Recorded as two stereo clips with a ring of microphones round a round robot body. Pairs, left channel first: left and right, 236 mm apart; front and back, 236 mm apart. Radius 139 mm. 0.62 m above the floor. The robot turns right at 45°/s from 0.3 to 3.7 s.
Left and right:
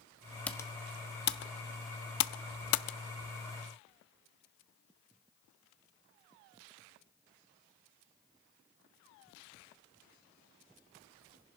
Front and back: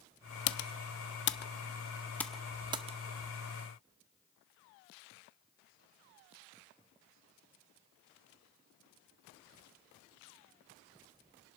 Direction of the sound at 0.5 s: 5° left.